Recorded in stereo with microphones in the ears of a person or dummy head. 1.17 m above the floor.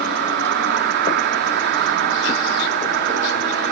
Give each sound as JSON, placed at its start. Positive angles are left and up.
{"t": 0.0, "sound": "an insect", "side_deg": -60}